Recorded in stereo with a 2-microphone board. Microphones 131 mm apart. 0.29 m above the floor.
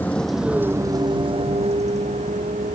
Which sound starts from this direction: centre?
A vehicle, at 0.0 s.